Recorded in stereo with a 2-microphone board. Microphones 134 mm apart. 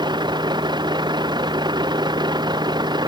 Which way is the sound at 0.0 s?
35° right (ahead or behind).